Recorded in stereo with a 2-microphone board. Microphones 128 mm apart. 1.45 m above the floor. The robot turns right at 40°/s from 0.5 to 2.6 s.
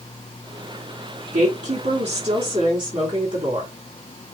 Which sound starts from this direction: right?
A woman speaking, at 1.3 s.